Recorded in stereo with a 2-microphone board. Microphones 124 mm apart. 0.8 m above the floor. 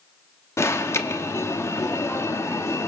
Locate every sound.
0.6 s an alarm: 20° left (ahead or behind), 1.1 m